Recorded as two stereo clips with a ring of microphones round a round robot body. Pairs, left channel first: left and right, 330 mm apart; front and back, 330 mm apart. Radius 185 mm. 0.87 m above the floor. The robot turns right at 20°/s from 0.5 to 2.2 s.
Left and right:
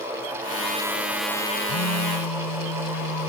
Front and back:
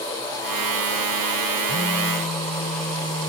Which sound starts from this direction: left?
A phone buzzing, at 1.7 s.